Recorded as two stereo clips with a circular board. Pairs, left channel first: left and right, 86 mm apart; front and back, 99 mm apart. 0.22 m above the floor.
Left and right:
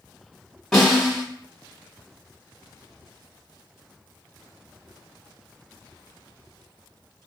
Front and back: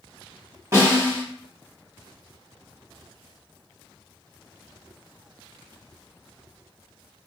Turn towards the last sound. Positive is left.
turn(degrees=165)